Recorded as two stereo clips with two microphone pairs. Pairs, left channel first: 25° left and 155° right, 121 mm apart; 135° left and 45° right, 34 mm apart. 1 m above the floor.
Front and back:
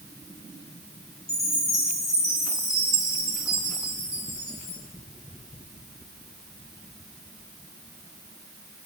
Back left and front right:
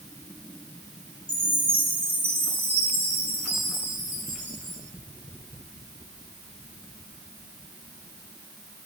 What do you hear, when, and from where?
1.3 s a chime: 35° right, 4 m